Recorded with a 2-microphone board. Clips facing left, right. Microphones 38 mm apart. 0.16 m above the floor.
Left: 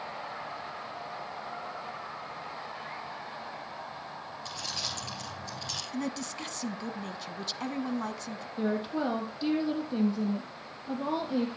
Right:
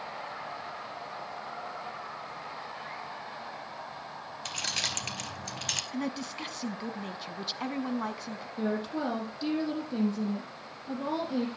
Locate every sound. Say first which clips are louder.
4.5 s keys jangling: right 5 dB; 65° right (ahead or behind), 2 m
5.9 s a woman speaking: even; 10° right (ahead or behind), 1.1 m
8.6 s a woman speaking: left 1 dB; 10° left (ahead or behind), 5 m